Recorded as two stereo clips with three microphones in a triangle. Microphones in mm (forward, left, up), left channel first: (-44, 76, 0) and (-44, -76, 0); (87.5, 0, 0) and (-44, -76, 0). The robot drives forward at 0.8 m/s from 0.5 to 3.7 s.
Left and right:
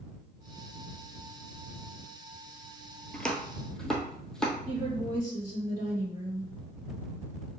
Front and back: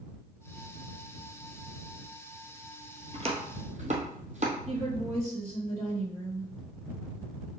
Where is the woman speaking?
130° right, 2.5 m.